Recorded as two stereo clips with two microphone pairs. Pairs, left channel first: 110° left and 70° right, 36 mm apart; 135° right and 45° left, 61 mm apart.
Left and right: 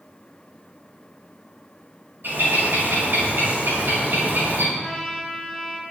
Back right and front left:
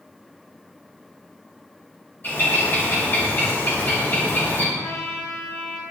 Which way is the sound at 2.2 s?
85° right.